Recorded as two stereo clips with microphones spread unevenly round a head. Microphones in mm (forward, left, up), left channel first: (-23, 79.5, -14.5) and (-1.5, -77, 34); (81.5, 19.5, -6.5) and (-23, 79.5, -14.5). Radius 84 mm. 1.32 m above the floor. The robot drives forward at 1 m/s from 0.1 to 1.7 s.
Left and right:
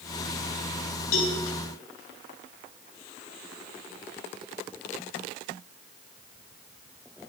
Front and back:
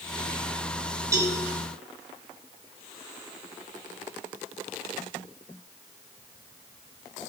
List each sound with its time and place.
1.1 s a cowbell: 85° left, 3 m; by 1.4 s 90° left, 3 m